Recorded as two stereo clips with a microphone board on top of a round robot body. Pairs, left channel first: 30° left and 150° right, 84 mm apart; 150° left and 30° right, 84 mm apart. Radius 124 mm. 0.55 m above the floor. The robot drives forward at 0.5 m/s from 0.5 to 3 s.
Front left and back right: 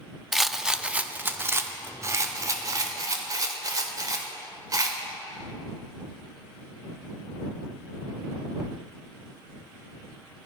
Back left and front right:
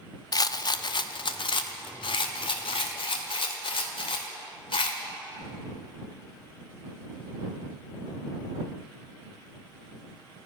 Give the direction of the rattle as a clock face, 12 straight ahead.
8 o'clock.